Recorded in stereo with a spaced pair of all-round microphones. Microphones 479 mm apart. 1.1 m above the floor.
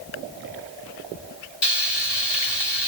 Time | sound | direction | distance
1.6 | frying | 60° left (ahead or behind) | 3.5 m